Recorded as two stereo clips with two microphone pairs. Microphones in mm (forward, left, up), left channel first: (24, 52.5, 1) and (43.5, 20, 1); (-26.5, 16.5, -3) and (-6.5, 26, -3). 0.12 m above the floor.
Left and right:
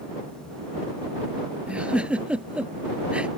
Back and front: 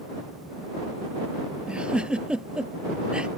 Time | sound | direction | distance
1.7 | a giggle | straight ahead | ?